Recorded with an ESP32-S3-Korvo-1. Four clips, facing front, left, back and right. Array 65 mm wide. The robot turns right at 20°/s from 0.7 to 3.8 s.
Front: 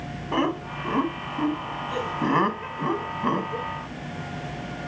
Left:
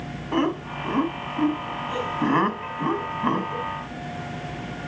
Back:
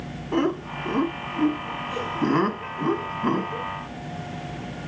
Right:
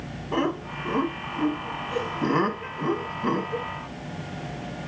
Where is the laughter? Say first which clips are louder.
Left 2 dB, back 1 dB; 20° left, 1.3 m; by 3.7 s 80° left, 1.3 m.